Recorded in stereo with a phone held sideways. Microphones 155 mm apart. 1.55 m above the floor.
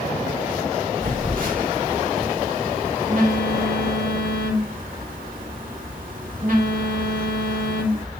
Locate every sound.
1.0 s a phone buzzing: 65° right (ahead or behind), 2.5 m